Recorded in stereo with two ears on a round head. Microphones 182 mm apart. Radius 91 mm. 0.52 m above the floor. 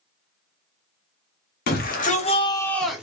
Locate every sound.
1.7 s a shout: 50° left (ahead or behind), 1.0 m; by 3.0 s 5° right (ahead or behind), 0.8 m